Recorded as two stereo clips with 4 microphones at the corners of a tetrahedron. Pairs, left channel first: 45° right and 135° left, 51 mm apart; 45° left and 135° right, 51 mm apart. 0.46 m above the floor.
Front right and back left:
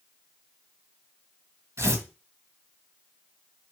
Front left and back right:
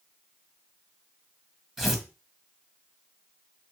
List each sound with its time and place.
1.8 s tearing paper: 140° left, 1.9 m